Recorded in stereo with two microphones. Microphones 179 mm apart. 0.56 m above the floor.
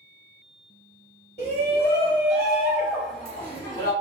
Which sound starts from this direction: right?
A shout, at 1.4 s.